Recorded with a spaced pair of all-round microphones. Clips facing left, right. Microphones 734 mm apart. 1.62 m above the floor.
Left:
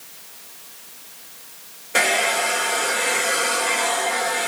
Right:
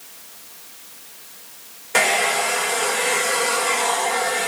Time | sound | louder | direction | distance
1.9 | a hair dryer | right 1 dB | 35° right (ahead or behind) | 0.7 m